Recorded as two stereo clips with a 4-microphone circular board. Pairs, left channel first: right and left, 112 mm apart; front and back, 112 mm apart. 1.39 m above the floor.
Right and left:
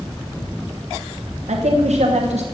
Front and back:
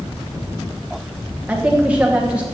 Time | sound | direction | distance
1.5 | a woman speaking | 100° left | 1.2 m